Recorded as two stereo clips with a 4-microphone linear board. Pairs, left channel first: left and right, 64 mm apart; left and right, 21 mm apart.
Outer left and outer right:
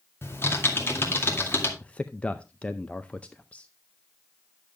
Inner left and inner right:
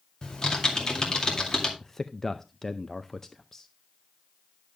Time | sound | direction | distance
0.2 | typing on a keyboard | 35° left (ahead or behind) | 2.5 m
1.8 | a man speaking | 20° left (ahead or behind) | 0.5 m